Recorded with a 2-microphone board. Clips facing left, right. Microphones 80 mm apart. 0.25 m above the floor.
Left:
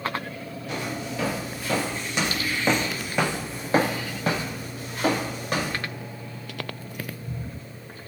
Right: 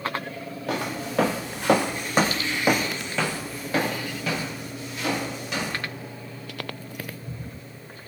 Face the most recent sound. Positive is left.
turn(degrees=50)  # may be behind; listen again after turning